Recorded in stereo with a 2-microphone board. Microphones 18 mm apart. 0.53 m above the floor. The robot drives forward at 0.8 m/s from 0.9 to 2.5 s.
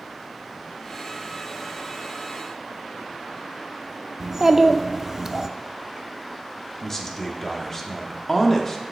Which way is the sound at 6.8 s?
20° left (ahead or behind).